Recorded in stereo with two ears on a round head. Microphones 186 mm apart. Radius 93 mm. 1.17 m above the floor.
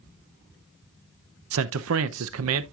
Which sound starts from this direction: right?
A man speaking, at 1.5 s.